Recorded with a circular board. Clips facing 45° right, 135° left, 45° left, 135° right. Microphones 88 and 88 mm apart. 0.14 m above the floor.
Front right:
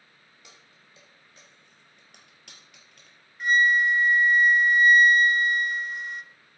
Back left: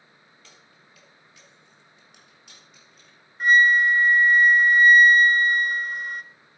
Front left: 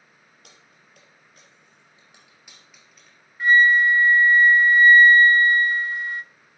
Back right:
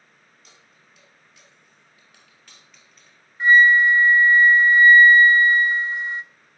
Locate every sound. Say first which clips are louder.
0.4 s keys jangling: front right 1 dB, front left 2 dB; 25° left, 2.5 m; by 3.2 s 45° right, 3 m
3.4 s a flute: back left 4 dB, back right 2 dB; 165° left, 0.5 m